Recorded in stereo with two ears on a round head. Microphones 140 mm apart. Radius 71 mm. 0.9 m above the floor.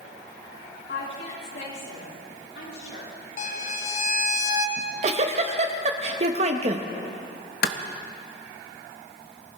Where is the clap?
65° left (ahead or behind), 0.9 m.